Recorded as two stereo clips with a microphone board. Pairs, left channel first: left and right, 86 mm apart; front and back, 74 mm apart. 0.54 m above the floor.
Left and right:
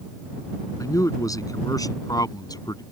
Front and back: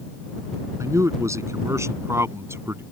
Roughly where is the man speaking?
Behind left.